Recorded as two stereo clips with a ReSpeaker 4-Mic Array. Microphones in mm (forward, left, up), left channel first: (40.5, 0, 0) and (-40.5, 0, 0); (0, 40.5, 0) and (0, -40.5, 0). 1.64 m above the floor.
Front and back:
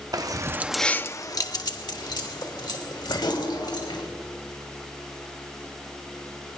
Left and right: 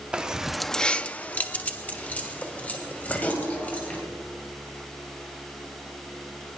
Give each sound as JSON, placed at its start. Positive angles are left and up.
{"t": 0.1, "sound": "keys jangling", "azimuth_deg": -165, "distance_m": 0.8}